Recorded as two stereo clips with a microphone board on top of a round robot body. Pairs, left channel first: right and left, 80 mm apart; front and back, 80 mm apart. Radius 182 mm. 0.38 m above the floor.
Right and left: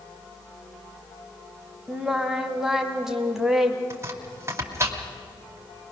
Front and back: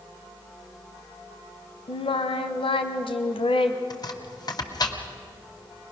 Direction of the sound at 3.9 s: 35° left.